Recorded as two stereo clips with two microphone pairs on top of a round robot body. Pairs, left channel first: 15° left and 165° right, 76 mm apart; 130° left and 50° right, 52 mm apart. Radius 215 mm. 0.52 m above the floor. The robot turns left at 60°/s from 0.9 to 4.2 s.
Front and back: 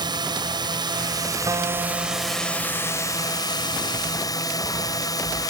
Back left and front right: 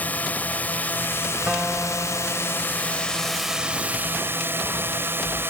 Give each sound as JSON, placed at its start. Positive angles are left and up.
{"t": 0.0, "sound": "a drone", "azimuth_deg": -175}
{"t": 1.5, "sound": "a guitar", "azimuth_deg": -125}